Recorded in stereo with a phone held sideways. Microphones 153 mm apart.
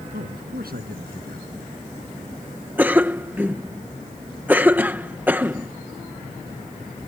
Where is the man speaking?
85° right.